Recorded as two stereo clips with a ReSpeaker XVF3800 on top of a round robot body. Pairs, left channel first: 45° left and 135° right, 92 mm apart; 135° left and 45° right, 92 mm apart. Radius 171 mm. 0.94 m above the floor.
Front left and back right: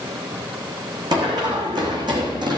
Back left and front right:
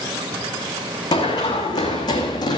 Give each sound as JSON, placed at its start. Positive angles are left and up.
{"t": 1.1, "sound": "running footsteps", "azimuth_deg": 180, "distance_m": 4.5}